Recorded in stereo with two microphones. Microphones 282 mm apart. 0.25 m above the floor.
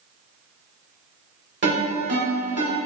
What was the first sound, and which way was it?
A ringtone, 40° right (ahead or behind).